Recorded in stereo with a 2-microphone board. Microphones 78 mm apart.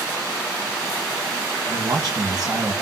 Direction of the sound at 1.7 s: 60° right (ahead or behind).